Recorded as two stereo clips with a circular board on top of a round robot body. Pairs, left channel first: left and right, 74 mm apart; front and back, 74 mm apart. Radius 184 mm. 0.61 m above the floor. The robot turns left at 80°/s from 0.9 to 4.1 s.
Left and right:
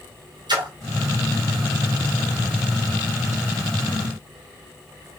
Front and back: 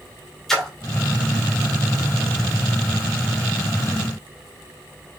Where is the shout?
I don't hear a shout.